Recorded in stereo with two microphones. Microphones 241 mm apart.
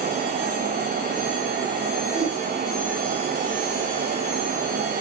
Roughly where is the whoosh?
Right.